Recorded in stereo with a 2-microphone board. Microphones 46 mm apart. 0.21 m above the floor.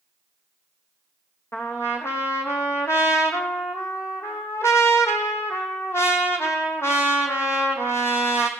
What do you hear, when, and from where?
1.5 s a trumpet: 70° left (ahead or behind), 1.8 m